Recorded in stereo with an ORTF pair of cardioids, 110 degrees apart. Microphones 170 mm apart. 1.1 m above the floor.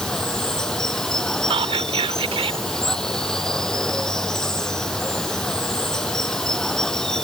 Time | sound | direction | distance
0.0 | running water | 5° left | ?
1.5 | whispering | 35° right | ?